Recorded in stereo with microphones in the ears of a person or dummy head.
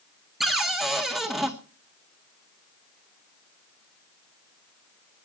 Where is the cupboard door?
5° right (ahead or behind), 1.8 m.